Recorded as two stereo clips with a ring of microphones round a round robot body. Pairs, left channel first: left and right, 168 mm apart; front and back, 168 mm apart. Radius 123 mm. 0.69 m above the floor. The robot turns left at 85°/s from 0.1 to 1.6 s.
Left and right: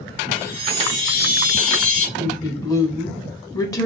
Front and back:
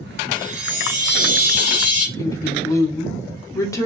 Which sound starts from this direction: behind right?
A chime, at 0.3 s.